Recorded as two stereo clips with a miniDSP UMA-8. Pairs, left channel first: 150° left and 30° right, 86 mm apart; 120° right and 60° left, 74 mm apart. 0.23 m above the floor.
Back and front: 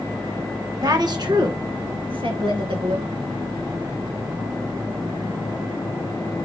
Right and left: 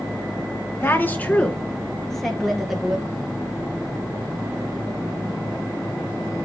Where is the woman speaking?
65° right, 2 m; by 3.1 s 25° right, 4.5 m.